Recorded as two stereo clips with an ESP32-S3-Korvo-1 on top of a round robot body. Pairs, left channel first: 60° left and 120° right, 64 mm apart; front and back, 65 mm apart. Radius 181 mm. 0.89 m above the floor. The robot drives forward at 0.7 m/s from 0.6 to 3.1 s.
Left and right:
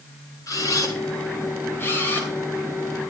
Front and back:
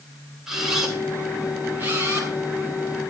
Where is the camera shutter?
95° left, 2 m; by 3.1 s 135° left, 3 m.